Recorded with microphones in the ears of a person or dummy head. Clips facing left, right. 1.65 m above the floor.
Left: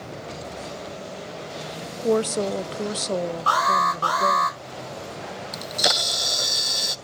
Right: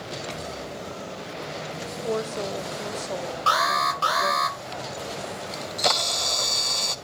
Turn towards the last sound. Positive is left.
turn(degrees=15)  # may be behind; listen again after turning